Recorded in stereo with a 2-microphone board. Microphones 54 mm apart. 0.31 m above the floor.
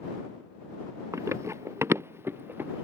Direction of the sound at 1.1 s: 65° right (ahead or behind).